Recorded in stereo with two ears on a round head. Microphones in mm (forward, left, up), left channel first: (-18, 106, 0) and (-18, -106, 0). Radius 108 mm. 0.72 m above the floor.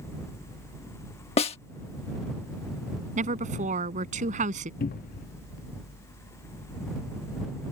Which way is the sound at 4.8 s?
35° left (ahead or behind).